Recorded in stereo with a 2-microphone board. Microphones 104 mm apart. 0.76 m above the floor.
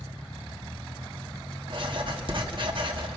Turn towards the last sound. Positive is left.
turn(degrees=-55)  # may be behind; listen again after turning